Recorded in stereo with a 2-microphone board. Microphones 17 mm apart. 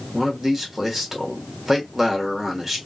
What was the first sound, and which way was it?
A man speaking, 20° right (ahead or behind).